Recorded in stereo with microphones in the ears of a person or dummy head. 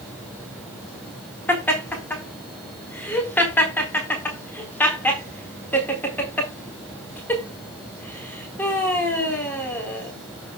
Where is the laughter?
10° left (ahead or behind), 4 m.